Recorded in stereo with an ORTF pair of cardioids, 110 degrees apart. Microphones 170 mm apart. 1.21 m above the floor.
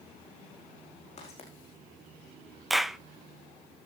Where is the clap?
Straight ahead, 0.5 m.